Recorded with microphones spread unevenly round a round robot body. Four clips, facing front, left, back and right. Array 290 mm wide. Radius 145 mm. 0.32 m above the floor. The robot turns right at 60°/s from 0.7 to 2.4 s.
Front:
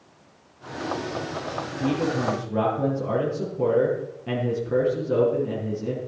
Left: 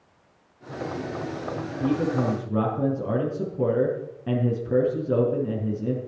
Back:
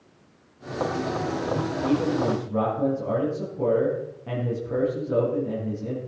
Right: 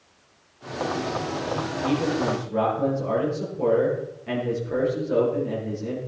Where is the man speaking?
50° left, 5 m; by 6.0 s 90° left, 5 m.